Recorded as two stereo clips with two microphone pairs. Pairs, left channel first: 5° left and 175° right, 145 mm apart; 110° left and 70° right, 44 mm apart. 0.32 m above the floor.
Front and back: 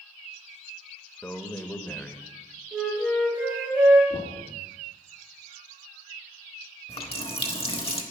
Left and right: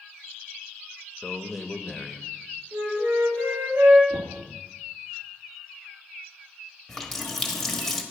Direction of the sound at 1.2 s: 50° left.